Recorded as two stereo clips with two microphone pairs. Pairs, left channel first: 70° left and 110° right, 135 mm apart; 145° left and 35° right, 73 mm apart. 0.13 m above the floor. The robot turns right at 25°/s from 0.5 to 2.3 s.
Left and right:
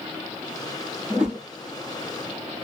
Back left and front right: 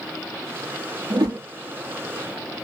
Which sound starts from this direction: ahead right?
A whoosh, at 1.1 s.